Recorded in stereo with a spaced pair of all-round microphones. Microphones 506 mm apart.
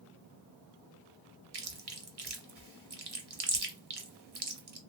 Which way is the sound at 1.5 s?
50° right (ahead or behind).